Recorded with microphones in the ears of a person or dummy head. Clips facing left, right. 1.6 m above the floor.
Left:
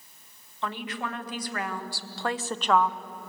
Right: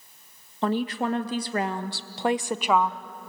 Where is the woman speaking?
30° right (ahead or behind), 1.7 m; by 3.0 s 5° left (ahead or behind), 0.6 m.